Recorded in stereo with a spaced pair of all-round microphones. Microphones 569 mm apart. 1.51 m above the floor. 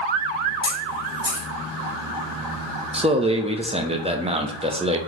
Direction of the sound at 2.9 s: 10° right (ahead or behind).